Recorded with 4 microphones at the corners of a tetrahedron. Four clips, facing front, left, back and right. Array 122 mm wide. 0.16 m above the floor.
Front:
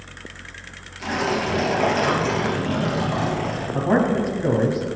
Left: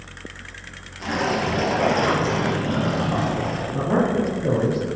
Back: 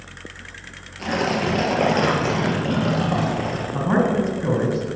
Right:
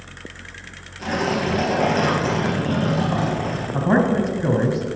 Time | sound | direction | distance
1.0 | tearing paper | 165° right | 3 m
3.7 | a man speaking | 105° right | 2.5 m